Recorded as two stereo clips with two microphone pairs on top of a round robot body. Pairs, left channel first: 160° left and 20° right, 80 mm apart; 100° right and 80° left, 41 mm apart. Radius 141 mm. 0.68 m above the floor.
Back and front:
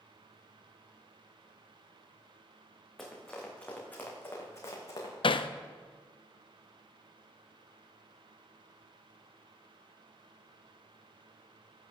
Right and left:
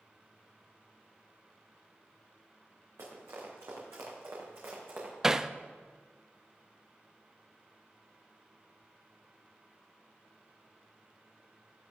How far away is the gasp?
I don't hear a gasp.